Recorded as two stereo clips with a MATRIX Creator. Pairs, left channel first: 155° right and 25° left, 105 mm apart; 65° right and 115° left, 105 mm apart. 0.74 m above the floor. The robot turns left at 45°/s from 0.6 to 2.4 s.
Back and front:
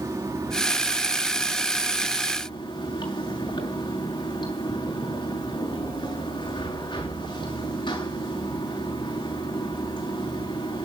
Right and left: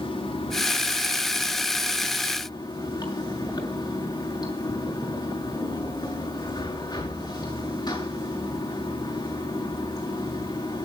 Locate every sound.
0.0 s running water: 35° right, 6.5 m; by 10.8 s 120° right, 6.5 m